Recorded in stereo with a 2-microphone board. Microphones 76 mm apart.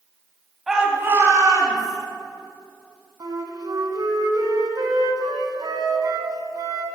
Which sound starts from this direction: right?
A flute, at 3.2 s.